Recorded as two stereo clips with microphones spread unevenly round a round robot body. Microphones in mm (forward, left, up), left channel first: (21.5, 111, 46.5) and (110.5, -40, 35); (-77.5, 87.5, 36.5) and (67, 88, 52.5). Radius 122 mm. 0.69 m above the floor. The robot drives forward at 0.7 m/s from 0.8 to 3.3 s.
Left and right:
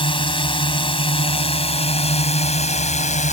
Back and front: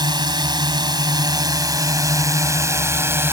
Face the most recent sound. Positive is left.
turn(degrees=75)